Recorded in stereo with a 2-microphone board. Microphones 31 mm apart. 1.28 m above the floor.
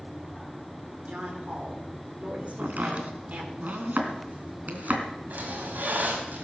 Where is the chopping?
70° right (ahead or behind), 3 m.